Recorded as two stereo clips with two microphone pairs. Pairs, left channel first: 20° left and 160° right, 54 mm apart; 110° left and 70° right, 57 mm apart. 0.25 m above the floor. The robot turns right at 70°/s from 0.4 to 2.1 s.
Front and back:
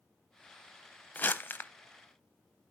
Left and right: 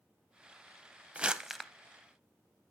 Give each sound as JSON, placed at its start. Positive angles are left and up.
{"t": 1.1, "sound": "crumpling", "azimuth_deg": -20, "distance_m": 0.7}